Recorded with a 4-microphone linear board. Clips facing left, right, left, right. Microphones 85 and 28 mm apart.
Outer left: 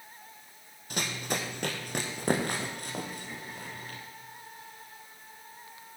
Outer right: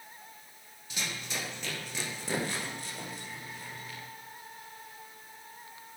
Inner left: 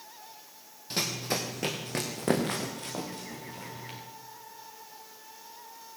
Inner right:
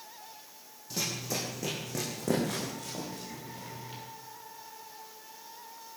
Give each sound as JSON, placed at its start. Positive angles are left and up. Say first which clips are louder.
{"t": 0.9, "sound": "running footsteps", "louder": "outer left 5 dB, inner left 3 dB", "side_deg": 60, "distance_m": 3.0}